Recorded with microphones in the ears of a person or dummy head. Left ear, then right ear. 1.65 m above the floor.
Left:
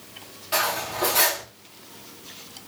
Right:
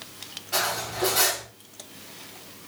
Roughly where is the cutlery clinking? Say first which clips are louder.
Left 2 dB; centre.